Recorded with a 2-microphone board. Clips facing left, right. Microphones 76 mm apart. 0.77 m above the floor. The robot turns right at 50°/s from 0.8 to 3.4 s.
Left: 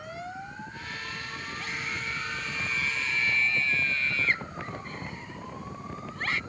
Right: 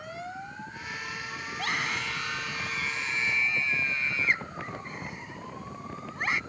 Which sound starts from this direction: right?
A scream, at 1.5 s.